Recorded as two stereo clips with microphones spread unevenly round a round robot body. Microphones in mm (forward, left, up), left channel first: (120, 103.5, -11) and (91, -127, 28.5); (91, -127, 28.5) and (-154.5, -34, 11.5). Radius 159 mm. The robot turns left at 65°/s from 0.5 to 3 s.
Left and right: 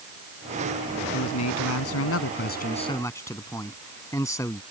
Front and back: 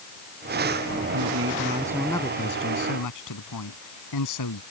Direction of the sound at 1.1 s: 125° left.